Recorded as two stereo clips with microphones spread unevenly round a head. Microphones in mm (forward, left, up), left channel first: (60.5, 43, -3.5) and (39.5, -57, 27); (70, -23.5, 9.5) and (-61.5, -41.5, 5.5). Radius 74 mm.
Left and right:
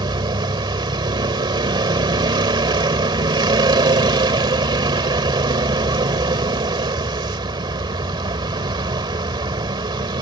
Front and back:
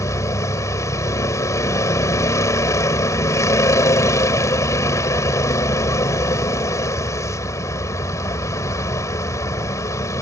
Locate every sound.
0.0 s a vehicle: 60° right